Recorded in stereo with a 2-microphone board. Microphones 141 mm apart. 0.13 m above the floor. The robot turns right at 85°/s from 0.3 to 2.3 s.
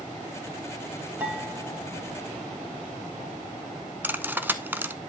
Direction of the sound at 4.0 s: 15° right (ahead or behind).